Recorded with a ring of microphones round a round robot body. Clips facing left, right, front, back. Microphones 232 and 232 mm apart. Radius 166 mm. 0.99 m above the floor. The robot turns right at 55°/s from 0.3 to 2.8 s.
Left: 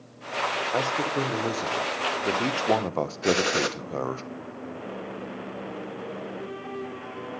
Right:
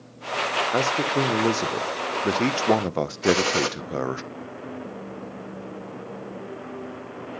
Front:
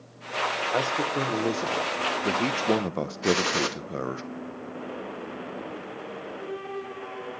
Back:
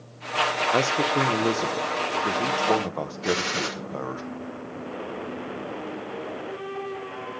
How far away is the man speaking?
About 0.7 m.